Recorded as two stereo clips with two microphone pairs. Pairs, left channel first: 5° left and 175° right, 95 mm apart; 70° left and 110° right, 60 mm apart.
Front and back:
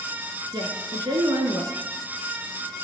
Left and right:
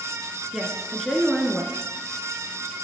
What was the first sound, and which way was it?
A woman speaking, 155° left.